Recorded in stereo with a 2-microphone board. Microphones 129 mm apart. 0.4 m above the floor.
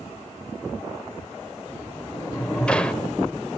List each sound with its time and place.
1.7 s a sliding door: 10° left (ahead or behind), 1.0 m